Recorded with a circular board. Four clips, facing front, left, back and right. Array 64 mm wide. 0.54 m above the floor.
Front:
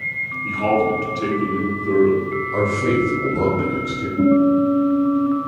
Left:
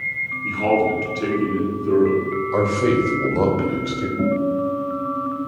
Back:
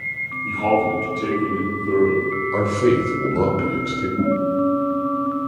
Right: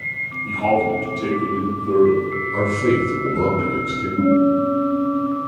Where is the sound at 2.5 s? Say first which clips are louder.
Even, back 1 dB; 125° left, 1.4 m.